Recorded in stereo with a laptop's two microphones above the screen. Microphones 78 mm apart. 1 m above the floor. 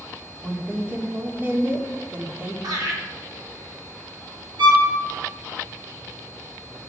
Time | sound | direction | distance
0.4 | a woman speaking | 25° right (ahead or behind) | 2.5 m
2.6 | laughter | 55° right (ahead or behind) | 3 m
4.6 | a violin | 70° right (ahead or behind) | 2.5 m